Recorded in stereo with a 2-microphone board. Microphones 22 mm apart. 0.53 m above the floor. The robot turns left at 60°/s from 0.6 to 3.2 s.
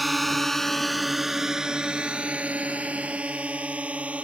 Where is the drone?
Centre (ahead or behind); by 4.2 s 75° right (ahead or behind).